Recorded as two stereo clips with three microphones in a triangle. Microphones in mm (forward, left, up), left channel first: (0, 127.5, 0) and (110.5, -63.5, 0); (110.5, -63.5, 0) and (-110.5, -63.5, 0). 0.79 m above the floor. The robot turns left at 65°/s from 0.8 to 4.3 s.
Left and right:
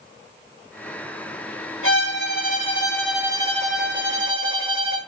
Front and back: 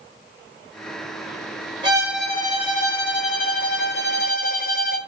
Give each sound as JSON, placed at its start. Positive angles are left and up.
{"t": 1.8, "sound": "a violin", "azimuth_deg": 115, "distance_m": 2.5}